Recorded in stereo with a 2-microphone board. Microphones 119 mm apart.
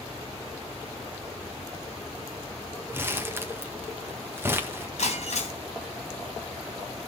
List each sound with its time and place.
2.9 s crumpling: 20° right (ahead or behind), 1.6 m
5.0 s breaking glass: 70° left (ahead or behind), 3.5 m